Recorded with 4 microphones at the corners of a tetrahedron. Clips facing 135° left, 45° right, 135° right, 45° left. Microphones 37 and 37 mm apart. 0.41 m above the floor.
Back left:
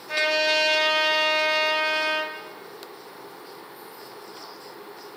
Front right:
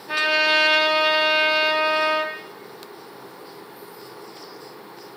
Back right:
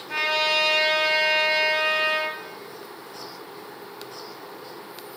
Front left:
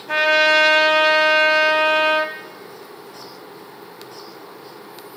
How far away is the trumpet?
About 0.8 m.